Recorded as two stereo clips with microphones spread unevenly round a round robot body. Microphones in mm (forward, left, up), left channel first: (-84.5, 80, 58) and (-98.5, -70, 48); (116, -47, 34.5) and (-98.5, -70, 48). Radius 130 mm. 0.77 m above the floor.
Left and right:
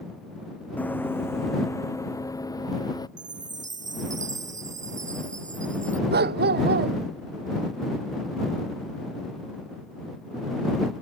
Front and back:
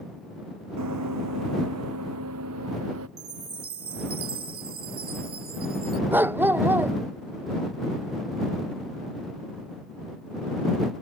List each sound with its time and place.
0.8 s running footsteps: 165° left; by 3.1 s 150° left
3.2 s a chime: 130° right
6.1 s a dog barking: 95° right